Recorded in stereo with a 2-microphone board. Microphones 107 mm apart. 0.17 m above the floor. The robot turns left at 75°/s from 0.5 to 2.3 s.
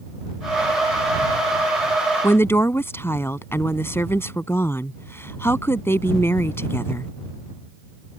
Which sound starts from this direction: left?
A woman speaking, at 2.2 s.